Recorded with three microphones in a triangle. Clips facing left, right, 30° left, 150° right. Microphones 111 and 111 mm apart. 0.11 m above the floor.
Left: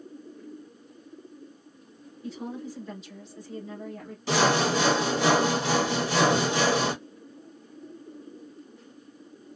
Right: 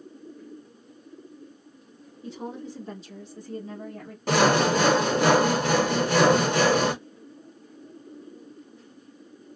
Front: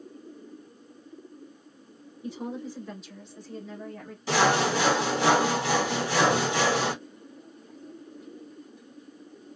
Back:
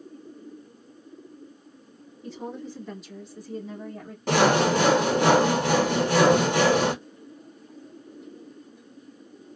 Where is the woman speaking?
35° right, 1.3 m; by 4.2 s 100° right, 1.4 m.